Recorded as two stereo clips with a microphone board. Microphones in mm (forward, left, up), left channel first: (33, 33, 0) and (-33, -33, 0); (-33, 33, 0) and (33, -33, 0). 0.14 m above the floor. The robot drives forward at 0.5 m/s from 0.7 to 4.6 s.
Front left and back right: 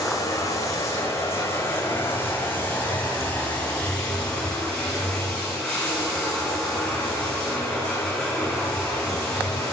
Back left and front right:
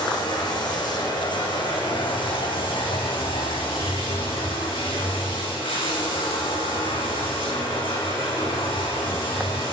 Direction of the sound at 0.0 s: 100° left.